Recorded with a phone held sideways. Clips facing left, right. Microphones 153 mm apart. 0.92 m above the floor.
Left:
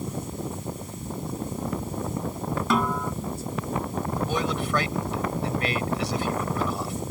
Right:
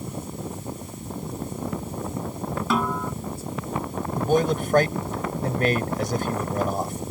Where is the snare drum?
Centre (ahead or behind).